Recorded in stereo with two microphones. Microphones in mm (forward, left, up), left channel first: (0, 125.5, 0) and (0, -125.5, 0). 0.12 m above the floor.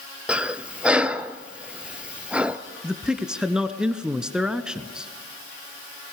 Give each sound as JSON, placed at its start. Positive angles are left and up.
{"t": 0.3, "sound": "breathing", "side_deg": -5, "distance_m": 0.8}
{"t": 2.8, "sound": "a man speaking", "side_deg": -5, "distance_m": 1.2}